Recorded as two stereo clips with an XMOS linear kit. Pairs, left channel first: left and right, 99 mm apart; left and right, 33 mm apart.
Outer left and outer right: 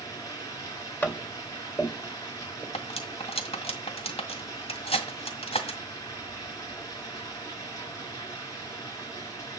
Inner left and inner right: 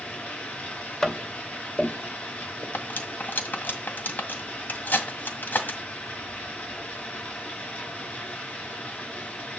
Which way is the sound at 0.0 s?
35° left (ahead or behind).